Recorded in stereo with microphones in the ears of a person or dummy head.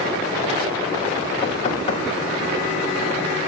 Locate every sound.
1.4 s knocking: 30° left (ahead or behind), 3.5 m